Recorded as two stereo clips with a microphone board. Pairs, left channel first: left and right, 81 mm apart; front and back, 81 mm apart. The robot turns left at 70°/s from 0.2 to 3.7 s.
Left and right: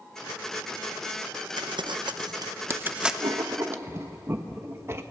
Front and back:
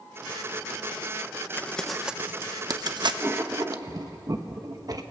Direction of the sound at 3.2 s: 110° right.